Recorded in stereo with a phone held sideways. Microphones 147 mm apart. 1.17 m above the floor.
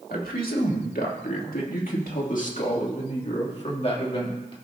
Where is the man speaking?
80° left, 2 m; by 4.5 s 35° left (ahead or behind), 2 m.